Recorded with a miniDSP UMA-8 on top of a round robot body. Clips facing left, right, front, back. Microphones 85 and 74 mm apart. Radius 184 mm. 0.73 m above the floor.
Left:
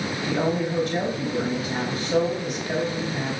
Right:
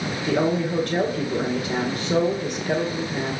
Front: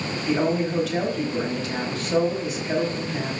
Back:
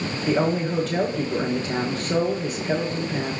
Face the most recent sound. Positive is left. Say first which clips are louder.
# right 3 dB, back 1 dB
turn(degrees=-130)